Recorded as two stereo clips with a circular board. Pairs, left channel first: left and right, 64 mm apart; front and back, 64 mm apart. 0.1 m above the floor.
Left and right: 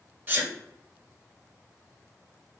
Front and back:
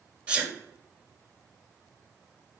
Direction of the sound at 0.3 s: 125° right.